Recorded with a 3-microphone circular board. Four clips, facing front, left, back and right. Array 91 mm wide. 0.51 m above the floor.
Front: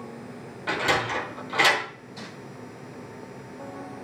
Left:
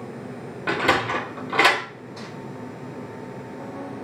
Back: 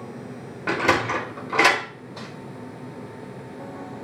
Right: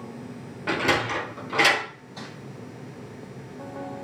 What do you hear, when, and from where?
0.7 s a sliding door: 135° left, 2.5 m
2.2 s crumpling: 165° left, 5 m